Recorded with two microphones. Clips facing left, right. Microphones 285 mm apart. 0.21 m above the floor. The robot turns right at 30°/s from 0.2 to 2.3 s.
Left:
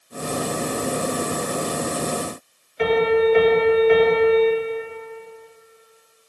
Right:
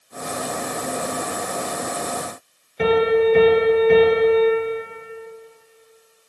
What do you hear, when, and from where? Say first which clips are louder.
2.8 s a piano: right 1 dB; 50° right (ahead or behind), 1.3 m